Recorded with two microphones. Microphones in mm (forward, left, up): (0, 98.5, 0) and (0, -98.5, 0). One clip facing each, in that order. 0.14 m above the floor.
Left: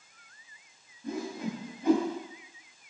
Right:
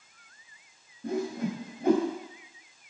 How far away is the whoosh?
About 4.5 m.